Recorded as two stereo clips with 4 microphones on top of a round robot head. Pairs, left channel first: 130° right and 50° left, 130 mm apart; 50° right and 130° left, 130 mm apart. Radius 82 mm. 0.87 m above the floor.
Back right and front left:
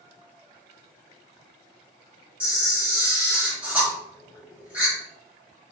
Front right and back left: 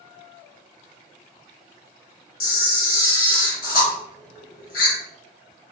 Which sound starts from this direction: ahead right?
A camera shutter, at 2.4 s.